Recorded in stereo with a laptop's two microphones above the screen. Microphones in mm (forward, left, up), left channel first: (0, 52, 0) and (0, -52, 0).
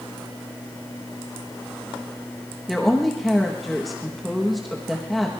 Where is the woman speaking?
Centre (ahead or behind), 1.2 m.